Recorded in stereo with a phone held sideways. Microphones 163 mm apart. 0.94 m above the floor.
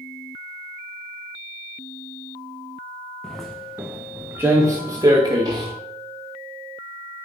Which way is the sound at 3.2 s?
5° left (ahead or behind).